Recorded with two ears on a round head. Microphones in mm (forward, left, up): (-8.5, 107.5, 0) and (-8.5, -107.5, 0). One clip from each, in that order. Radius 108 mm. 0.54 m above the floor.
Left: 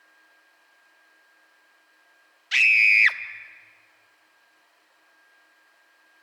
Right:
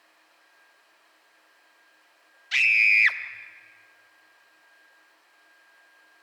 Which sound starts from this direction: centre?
A scream, at 2.5 s.